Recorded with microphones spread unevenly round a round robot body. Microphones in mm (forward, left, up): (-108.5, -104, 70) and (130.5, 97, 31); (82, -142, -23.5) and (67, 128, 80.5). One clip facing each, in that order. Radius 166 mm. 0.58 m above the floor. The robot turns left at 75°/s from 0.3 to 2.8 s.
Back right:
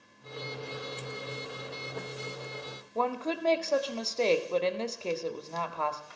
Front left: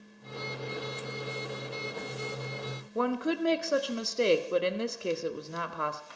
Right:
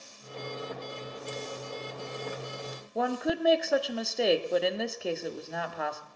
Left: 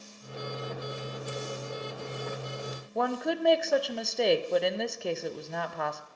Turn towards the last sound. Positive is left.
turn(degrees=-20)